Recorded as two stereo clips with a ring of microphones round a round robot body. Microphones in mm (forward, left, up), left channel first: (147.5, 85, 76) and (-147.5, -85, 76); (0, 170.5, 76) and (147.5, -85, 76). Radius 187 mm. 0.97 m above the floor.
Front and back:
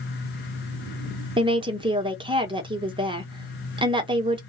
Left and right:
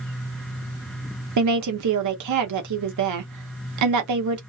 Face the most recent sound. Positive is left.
turn(degrees=-75)